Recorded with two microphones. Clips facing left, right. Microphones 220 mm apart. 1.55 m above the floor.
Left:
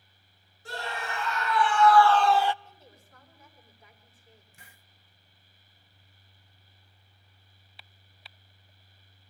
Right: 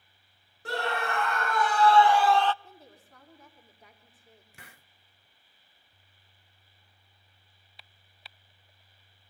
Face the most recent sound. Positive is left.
turn(degrees=-85)